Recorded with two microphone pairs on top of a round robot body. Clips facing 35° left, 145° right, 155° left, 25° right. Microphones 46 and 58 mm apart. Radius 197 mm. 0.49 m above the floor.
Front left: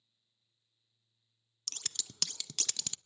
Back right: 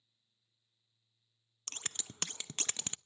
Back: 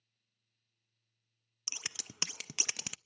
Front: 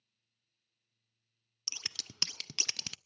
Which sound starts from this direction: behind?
Scissors, at 1.7 s.